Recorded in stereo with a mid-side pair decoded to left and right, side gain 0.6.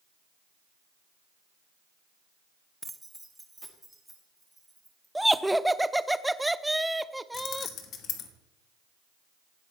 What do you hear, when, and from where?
2.8 s keys jangling: 10° right, 0.6 m
5.2 s laughter: 5° right, 0.5 m
7.3 s keys jangling: 60° left, 1.3 m